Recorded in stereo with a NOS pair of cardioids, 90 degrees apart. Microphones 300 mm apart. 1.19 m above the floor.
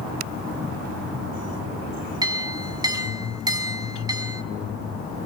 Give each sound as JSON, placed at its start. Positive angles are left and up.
{"t": 2.2, "sound": "a clink", "azimuth_deg": -15, "distance_m": 6.0}